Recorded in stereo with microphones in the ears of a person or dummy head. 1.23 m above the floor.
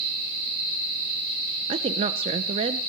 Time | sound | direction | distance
1.7 | a woman speaking | 35° right (ahead or behind) | 1.0 m